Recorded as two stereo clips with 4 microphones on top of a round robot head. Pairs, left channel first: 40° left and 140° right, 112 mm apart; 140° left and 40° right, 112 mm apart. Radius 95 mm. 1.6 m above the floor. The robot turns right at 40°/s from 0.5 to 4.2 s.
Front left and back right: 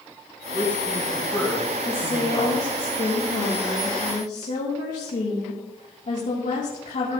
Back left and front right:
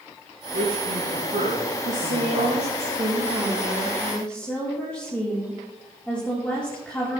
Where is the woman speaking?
30° right, 2.5 m; by 7.2 s 65° left, 2.5 m.